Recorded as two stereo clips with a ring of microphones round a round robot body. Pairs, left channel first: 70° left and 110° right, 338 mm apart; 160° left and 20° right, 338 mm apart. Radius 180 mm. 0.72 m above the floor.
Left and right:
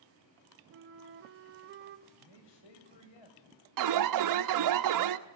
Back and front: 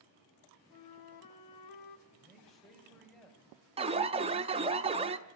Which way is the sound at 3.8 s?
95° right.